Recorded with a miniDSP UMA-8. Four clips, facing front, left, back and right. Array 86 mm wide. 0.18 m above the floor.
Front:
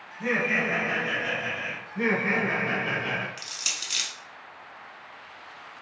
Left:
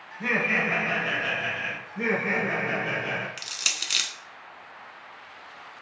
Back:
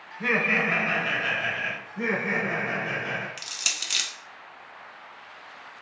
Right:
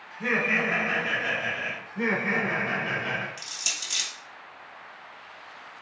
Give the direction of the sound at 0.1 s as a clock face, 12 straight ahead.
6 o'clock.